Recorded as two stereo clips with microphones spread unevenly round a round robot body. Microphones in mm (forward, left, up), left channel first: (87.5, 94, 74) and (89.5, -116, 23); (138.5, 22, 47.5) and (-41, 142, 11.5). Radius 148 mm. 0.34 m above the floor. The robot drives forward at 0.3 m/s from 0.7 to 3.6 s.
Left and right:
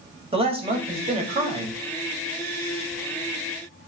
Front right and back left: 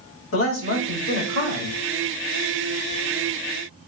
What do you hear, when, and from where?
0.3 s a man speaking: 40° right, 1.6 m; by 1.8 s 50° right, 1.4 m